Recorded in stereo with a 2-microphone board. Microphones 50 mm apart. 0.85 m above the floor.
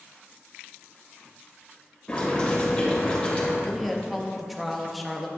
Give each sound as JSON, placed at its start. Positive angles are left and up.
{"t": 2.1, "sound": "boiling", "side_deg": 25, "distance_m": 2.5}
{"t": 3.6, "sound": "a woman speaking", "side_deg": 0, "distance_m": 0.9}